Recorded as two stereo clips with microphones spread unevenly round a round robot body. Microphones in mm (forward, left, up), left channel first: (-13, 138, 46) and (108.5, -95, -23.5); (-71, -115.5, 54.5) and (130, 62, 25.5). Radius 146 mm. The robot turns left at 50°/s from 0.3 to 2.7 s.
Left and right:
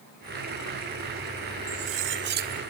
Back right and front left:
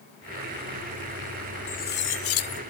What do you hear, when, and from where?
1.7 s cutlery clinking: 70° right, 0.8 m; by 2.6 s 120° right, 0.8 m